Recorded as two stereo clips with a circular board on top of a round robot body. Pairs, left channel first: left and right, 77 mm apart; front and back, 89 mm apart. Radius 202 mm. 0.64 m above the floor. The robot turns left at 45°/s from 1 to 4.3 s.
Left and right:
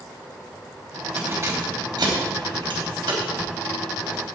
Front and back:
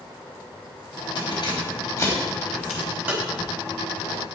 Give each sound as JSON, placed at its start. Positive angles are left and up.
{"t": 1.2, "sound": "keys jangling", "azimuth_deg": -25, "distance_m": 3.5}